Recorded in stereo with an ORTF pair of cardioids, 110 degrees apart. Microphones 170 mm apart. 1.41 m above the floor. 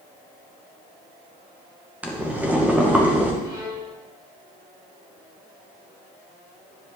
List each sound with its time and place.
2.0 s boiling: 10° right, 1.7 m
3.4 s a violin: 25° right, 3.5 m